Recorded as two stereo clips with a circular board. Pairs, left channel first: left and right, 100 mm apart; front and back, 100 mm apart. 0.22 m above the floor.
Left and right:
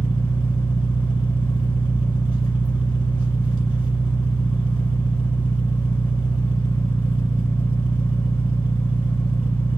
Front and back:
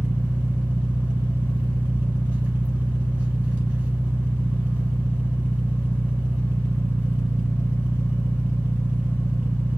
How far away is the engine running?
About 1.8 m.